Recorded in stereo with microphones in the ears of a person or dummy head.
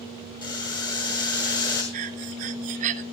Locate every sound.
0.4 s boiling: 20° left (ahead or behind), 6 m
1.9 s breathing: 40° right (ahead or behind), 0.8 m